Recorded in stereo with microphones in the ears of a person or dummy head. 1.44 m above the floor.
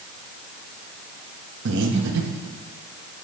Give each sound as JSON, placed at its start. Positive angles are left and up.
{"t": 1.6, "sound": "breathing", "side_deg": -75, "distance_m": 1.1}